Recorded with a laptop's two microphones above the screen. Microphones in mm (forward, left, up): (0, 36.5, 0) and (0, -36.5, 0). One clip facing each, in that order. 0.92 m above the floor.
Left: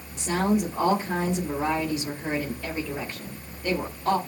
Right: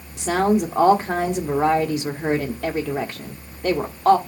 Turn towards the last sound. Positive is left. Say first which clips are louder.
# right 5 dB
turn(degrees=-80)